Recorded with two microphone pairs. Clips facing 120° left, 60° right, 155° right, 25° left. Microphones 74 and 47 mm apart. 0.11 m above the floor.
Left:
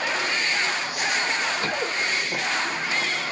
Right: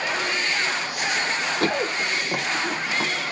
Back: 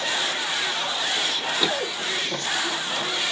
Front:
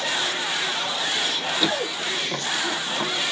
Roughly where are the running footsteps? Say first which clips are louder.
Right 3 dB, front 1 dB; right.